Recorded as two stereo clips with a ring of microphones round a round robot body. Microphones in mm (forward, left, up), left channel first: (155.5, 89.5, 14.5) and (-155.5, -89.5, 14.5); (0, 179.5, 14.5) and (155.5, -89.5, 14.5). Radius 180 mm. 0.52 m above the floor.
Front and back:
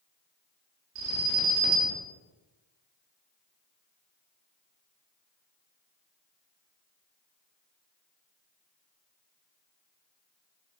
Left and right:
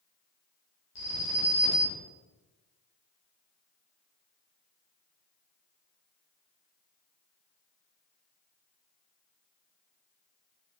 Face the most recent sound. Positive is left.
turn(degrees=155)